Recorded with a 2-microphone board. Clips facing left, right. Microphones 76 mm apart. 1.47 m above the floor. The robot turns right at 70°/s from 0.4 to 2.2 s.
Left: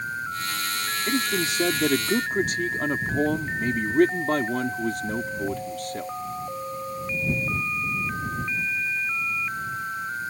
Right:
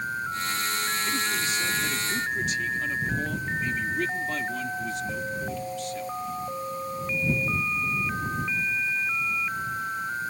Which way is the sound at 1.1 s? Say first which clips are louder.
Left 3 dB; 45° left.